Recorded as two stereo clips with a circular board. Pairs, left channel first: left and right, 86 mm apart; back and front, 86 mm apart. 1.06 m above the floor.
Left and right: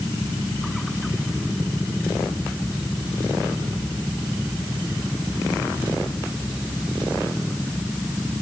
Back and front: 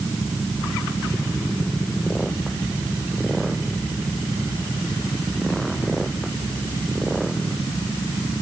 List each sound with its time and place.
Only background noise.